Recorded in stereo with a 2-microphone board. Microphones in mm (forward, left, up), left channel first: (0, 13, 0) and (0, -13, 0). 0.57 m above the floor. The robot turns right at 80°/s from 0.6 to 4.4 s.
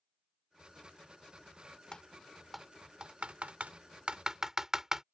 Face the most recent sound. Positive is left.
turn(degrees=-20)  # may be behind; listen again after turning